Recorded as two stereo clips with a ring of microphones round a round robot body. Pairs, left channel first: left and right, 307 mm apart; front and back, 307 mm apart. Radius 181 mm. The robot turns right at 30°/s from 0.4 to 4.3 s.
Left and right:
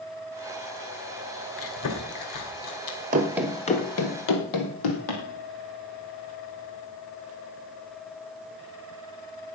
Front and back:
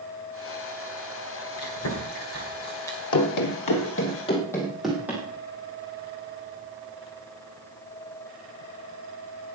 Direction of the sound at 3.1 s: 30° right.